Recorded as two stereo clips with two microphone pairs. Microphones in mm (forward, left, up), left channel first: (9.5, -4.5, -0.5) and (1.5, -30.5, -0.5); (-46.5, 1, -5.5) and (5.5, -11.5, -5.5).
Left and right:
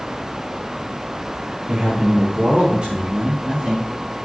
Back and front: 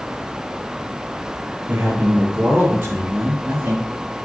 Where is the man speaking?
60° right, 4 m; by 3.9 s 50° right, 5 m.